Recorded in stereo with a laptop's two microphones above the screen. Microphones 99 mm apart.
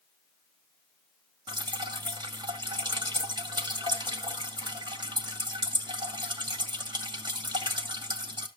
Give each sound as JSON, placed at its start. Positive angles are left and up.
{"t": 1.5, "sound": "dripping", "side_deg": -50, "distance_m": 2.0}